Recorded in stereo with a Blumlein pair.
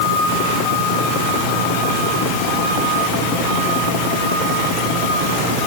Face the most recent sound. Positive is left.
No sound to turn to.